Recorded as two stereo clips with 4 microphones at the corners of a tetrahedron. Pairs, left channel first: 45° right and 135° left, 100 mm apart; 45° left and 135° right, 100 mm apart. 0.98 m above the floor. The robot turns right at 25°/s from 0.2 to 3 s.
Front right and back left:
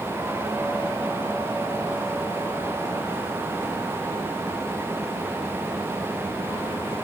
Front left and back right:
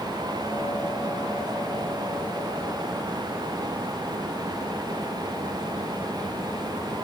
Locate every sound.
Only background noise.